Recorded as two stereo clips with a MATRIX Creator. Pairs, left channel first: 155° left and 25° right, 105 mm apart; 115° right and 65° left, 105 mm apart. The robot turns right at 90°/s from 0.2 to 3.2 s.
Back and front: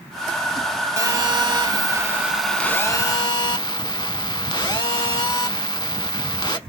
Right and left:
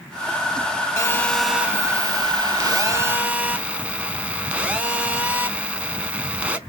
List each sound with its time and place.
1.0 s a phone buzzing: 65° right, 0.5 m; by 6.6 s 135° left, 0.5 m